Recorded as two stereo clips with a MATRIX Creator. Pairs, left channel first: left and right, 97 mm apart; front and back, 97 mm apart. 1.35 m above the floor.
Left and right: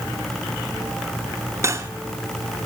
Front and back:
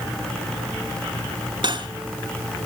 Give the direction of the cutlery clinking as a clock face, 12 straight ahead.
5 o'clock.